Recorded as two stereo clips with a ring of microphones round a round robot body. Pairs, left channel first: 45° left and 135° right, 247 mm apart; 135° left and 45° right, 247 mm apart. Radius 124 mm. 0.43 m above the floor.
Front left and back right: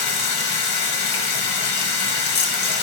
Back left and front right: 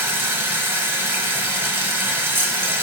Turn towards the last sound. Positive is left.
turn(degrees=35)